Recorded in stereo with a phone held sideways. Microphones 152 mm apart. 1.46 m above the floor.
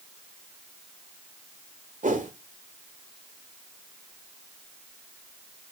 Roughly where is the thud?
No thud in this recording.